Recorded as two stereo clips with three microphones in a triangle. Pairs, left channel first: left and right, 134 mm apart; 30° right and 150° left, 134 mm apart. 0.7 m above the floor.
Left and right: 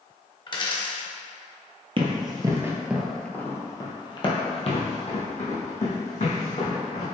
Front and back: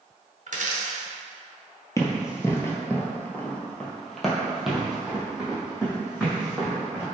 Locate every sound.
0.5 s a dropped coin: 140° left, 0.7 m
2.0 s running footsteps: 85° right, 0.8 m; by 7.0 s 70° left, 2 m